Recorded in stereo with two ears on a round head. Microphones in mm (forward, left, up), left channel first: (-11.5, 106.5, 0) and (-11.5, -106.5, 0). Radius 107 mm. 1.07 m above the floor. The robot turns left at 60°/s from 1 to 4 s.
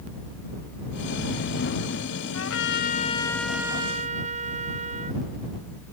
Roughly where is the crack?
I don't hear a crack.